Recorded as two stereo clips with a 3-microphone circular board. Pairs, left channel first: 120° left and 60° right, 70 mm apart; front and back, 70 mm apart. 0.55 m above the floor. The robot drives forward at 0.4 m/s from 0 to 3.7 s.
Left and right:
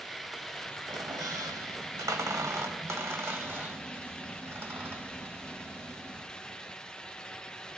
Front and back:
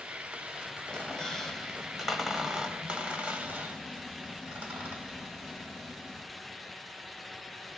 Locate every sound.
0.9 s a squeak: 75° right, 1.7 m; by 6.2 s 115° right, 1.8 m